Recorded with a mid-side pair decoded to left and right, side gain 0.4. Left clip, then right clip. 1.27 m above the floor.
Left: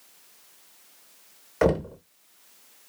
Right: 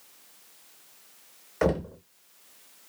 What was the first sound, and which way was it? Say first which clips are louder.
Knocking: left 3 dB; 25° left.